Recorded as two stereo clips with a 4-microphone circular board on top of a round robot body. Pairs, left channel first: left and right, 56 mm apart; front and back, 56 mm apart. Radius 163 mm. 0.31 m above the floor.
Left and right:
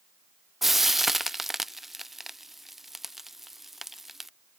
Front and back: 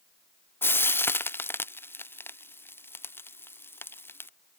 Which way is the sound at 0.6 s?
5° right.